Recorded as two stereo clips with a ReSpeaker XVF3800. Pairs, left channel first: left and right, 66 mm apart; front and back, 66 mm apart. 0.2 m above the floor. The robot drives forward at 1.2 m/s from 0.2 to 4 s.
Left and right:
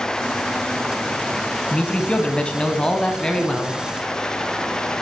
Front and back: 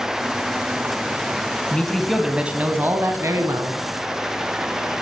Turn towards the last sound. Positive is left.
turn(degrees=170)